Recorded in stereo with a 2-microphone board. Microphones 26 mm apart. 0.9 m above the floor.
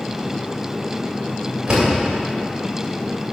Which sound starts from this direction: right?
A door slam, at 1.7 s.